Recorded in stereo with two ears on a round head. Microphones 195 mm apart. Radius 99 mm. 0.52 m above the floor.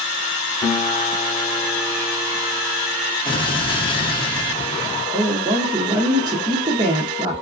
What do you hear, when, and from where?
0.6 s a guitar: 20° left (ahead or behind), 1.2 m
3.2 s an explosion: 25° left (ahead or behind), 0.7 m
5.1 s a woman speaking: 20° right (ahead or behind), 0.6 m